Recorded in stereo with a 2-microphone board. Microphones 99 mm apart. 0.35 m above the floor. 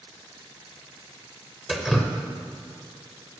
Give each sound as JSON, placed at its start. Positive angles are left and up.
{"t": 1.7, "sound": "dripping", "side_deg": 0, "distance_m": 0.8}